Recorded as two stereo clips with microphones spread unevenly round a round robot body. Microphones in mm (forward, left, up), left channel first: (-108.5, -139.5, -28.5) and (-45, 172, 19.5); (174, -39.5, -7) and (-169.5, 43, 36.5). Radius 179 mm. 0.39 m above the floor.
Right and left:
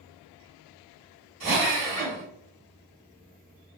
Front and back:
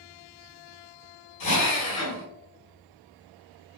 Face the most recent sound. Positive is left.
turn(degrees=5)